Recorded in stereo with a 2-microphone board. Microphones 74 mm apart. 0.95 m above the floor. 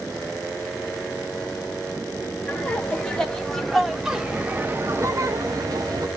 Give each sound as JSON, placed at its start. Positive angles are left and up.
{"t": 2.5, "sound": "laughter", "side_deg": 15, "distance_m": 1.6}